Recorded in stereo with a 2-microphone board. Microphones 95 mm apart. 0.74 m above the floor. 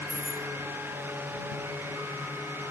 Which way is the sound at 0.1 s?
5° left (ahead or behind).